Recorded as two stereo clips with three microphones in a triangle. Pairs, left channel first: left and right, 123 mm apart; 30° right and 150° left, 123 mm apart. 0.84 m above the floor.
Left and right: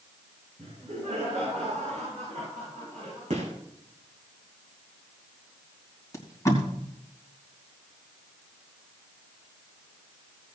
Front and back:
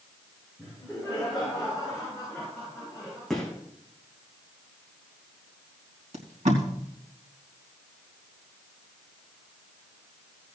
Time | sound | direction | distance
0.6 | laughter | 120° right | 6.5 m
3.3 | a gunshot | 115° right | 3 m
6.1 | tape being pulled | 155° left | 3 m